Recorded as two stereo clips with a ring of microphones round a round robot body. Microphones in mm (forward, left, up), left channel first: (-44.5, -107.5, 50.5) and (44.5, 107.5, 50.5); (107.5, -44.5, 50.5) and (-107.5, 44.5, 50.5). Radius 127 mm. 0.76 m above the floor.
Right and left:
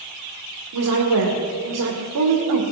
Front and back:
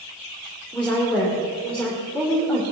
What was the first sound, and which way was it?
A woman speaking, 65° left.